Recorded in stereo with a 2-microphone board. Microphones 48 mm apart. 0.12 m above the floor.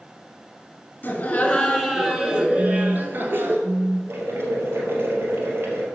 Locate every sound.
1.0 s laughter: 35° left (ahead or behind), 1.7 m; by 3.6 s 50° right (ahead or behind), 2.5 m
2.6 s a phone buzzing: 10° right (ahead or behind), 1.2 m
4.1 s boiling: 55° right (ahead or behind), 2.5 m